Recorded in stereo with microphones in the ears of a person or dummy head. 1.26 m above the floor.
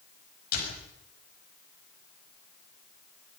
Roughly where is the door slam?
Left.